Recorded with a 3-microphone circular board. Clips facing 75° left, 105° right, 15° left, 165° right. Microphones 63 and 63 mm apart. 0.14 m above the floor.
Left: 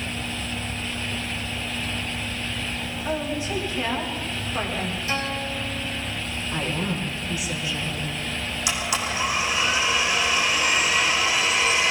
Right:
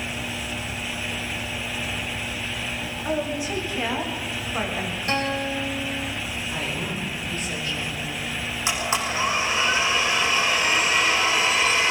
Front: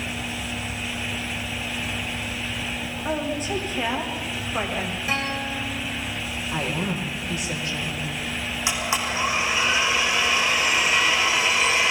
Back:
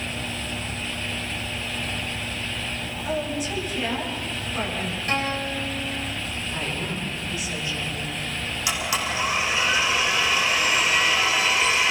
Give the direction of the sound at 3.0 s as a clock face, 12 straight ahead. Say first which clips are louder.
Right 1 dB, front 1 dB; 1 o'clock.